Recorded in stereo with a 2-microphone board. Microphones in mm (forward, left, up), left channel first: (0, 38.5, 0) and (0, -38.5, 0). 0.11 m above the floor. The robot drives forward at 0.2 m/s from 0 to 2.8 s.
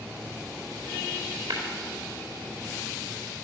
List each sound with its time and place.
1.5 s tapping: 70° right (ahead or behind), 4.5 m